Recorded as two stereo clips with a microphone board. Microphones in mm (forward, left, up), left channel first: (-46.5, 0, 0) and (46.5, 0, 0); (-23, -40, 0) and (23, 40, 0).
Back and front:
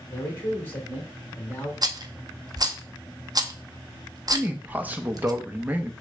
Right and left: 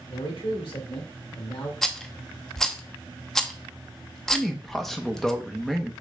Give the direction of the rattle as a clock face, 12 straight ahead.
1 o'clock.